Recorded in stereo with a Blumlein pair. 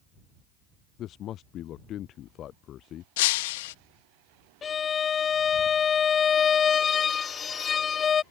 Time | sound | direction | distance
1.0 | a man speaking | 30° left | ?
3.2 | breaking glass | 50° left | ?
4.6 | a violin | 20° left | ?